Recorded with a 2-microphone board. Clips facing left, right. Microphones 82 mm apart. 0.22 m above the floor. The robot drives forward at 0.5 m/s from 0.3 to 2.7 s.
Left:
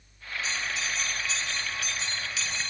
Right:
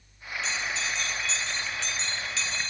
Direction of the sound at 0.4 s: 10° left (ahead or behind).